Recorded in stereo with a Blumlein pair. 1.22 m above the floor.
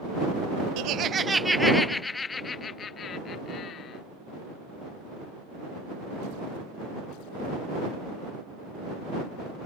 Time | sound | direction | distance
0.8 | laughter | 45° right | ?